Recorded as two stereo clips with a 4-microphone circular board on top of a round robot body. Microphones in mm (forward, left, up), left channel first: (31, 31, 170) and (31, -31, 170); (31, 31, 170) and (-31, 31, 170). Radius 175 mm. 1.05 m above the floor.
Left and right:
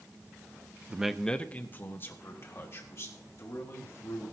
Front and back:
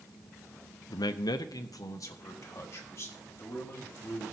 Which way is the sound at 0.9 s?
20° right.